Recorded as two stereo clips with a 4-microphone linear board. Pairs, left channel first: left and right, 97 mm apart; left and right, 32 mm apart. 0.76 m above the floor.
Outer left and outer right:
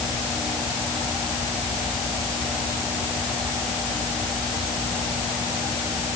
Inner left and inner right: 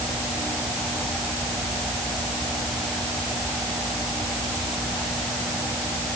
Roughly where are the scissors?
I don't hear scissors.